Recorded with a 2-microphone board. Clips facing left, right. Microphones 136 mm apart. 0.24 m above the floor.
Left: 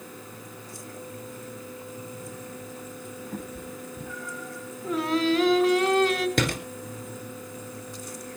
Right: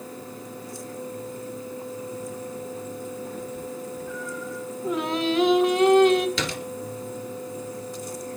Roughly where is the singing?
Right.